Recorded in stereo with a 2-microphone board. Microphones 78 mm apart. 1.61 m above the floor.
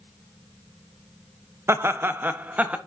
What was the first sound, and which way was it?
Laughter, 35° right (ahead or behind).